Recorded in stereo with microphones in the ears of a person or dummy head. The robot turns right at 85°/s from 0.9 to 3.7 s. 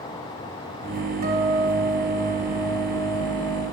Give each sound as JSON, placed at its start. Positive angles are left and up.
{"t": 1.2, "sound": "a guitar", "azimuth_deg": -130, "distance_m": 0.9}